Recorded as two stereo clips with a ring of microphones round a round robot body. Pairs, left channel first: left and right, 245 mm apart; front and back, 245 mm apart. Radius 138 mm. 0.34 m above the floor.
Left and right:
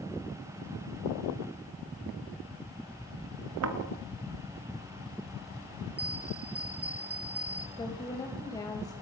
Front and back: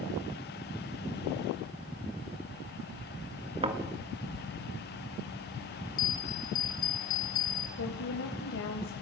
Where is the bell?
5° right, 2.5 m.